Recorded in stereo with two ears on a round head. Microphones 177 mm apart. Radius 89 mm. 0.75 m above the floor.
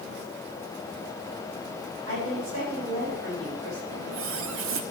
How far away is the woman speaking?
About 6 m.